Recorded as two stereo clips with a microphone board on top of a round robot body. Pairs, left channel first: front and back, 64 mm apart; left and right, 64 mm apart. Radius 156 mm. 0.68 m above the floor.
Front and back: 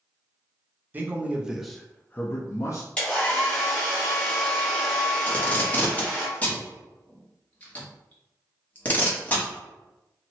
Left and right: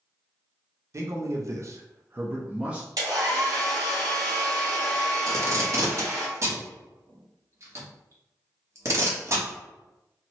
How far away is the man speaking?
About 0.8 m.